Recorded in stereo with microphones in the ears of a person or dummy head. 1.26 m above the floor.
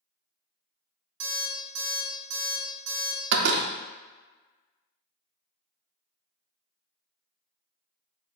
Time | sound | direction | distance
1.2 | an alarm clock | 70° right (ahead or behind) | 1.0 m
3.3 | a door slam | 55° right (ahead or behind) | 0.5 m